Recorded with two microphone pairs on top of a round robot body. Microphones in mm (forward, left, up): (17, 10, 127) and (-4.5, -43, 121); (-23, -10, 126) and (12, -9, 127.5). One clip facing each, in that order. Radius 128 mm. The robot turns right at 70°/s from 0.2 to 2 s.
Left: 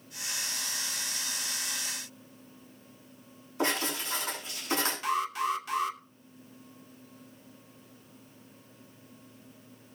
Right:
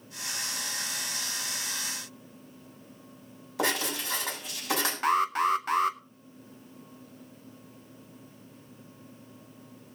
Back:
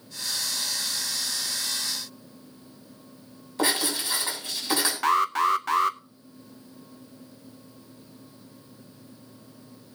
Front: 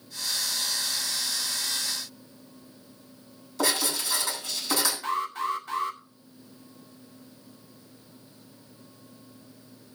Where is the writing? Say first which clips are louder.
Right 1 dB, back 1 dB; 120° right, 6.5 m.